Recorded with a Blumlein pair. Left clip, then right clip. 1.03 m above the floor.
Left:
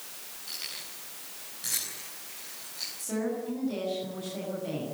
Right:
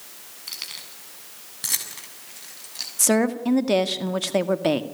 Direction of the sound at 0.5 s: 25° right.